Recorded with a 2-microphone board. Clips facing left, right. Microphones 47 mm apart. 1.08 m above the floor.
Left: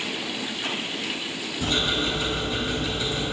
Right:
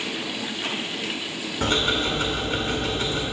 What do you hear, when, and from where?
1.6 s ticking: 60° right (ahead or behind), 2.5 m